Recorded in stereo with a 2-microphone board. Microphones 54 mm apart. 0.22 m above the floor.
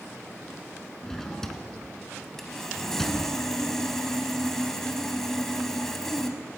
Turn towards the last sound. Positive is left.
turn(degrees=5)  # may be behind; listen again after turning